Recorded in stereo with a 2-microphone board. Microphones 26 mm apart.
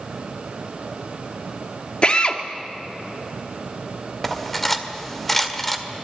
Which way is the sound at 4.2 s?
10° left (ahead or behind).